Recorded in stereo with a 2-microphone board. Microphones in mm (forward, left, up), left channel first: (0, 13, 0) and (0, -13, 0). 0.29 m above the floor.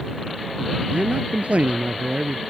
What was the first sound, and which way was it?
A man speaking, 70° right (ahead or behind).